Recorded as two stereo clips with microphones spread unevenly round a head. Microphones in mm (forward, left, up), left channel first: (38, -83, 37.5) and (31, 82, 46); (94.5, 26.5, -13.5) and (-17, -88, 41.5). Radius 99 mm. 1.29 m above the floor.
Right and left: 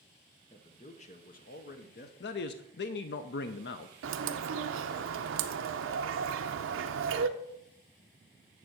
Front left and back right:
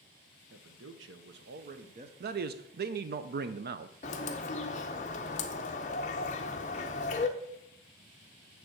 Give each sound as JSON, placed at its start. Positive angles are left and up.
{"t": 0.5, "sound": "a man speaking", "azimuth_deg": -150, "distance_m": 1.0}
{"t": 2.2, "sound": "a man speaking", "azimuth_deg": -100, "distance_m": 0.5}
{"t": 4.0, "sound": "a bird", "azimuth_deg": 105, "distance_m": 0.5}